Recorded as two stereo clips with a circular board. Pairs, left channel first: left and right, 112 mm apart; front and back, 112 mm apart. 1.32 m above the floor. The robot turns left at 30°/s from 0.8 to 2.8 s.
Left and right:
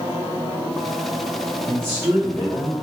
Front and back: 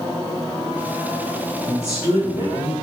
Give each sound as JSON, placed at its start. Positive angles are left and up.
{"t": 1.7, "sound": "a woman speaking", "azimuth_deg": -125, "distance_m": 1.2}